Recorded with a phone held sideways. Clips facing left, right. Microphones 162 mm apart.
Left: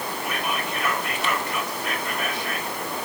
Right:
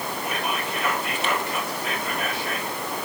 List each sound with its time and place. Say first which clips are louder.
0.2 s whispering: even; 30° right (ahead or behind), 5 m